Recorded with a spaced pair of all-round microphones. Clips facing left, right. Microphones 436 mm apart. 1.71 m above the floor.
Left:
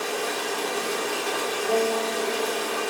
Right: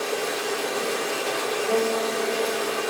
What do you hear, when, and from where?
0.0 s running water: 10° left (ahead or behind), 1.7 m
1.7 s a guitar: 5° right (ahead or behind), 2.5 m